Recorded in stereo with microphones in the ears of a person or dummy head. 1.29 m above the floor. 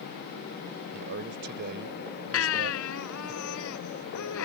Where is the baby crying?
80° left.